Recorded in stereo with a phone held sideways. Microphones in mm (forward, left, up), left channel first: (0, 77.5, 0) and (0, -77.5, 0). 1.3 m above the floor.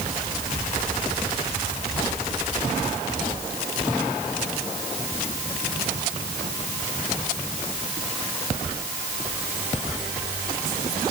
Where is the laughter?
No laughter in this recording.